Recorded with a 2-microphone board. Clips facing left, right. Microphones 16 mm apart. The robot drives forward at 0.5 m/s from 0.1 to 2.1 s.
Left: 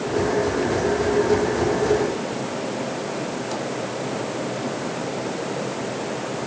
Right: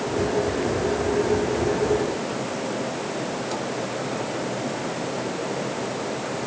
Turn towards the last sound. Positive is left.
No sound to turn to.